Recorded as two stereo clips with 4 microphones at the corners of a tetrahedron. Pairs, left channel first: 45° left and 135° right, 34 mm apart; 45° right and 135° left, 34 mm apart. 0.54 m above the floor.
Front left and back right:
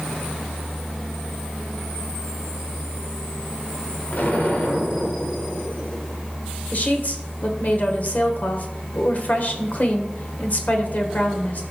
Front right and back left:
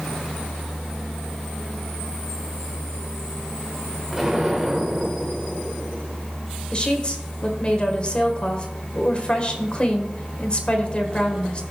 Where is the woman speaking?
10° left, 1.7 m.